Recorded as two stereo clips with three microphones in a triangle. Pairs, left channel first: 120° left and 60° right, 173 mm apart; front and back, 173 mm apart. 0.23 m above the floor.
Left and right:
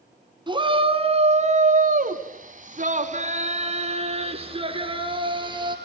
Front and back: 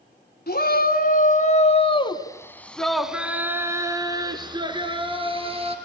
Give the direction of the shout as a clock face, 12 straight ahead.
12 o'clock.